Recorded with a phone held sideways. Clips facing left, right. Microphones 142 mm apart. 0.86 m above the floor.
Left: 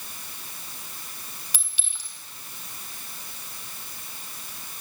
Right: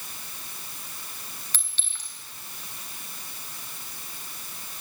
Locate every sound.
1.5 s a clink: 10° left (ahead or behind), 3.5 m